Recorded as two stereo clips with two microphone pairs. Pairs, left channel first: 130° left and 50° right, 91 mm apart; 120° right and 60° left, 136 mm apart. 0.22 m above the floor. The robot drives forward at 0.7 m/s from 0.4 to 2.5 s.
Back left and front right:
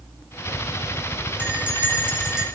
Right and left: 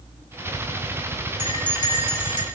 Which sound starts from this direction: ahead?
A bell, at 1.4 s.